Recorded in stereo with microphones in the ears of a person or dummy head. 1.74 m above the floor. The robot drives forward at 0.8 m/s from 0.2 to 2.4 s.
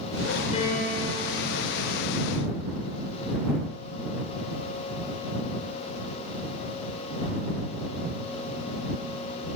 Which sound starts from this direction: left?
A piano, at 0.5 s.